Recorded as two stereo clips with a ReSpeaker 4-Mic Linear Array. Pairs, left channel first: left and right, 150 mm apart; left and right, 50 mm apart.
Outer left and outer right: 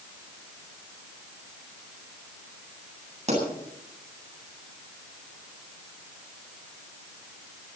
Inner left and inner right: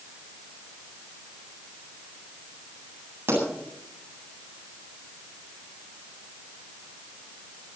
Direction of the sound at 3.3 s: 50° right (ahead or behind).